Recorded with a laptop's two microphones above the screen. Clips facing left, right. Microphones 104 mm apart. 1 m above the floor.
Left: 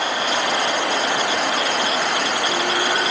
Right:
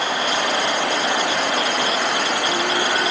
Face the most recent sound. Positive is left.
No sound to turn to.